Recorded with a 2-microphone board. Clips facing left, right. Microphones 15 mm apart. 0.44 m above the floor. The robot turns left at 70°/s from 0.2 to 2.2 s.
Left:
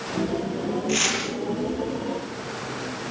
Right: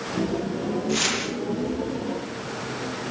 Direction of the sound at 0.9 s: 40° left (ahead or behind).